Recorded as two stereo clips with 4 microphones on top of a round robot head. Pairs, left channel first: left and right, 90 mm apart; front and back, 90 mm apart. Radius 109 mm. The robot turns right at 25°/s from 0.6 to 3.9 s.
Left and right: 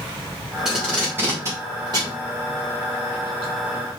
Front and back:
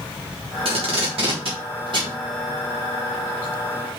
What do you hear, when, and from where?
0.7 s tape being pulled: 175° right, 2.5 m; by 4.0 s 90° right, 2.5 m